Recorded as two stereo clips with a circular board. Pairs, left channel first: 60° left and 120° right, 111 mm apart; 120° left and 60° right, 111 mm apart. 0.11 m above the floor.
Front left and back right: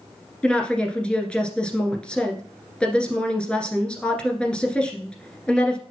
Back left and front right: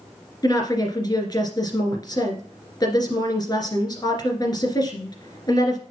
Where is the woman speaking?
135° left, 1.7 m.